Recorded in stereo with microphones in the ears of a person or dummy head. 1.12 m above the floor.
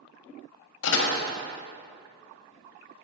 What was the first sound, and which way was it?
A door slam, 70° left (ahead or behind).